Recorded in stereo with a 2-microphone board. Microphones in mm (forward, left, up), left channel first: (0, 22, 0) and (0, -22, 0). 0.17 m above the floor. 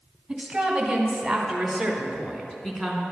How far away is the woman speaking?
About 1.2 m.